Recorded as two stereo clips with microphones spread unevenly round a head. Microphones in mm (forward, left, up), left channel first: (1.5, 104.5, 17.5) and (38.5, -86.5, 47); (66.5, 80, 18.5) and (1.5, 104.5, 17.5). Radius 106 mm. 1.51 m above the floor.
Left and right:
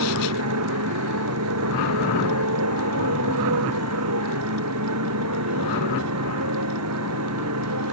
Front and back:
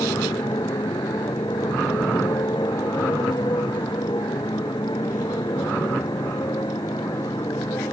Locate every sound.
0.0 s a motorcycle: 85° right